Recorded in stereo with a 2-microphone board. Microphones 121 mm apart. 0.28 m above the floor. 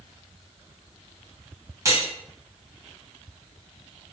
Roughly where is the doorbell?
I don't hear a doorbell.